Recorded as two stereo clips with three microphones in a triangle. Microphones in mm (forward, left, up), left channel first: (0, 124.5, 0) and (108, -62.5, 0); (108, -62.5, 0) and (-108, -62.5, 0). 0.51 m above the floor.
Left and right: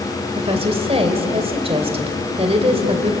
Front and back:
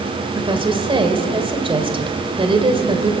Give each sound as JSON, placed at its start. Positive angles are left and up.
{"t": 0.3, "sound": "a woman speaking", "azimuth_deg": -115, "distance_m": 2.5}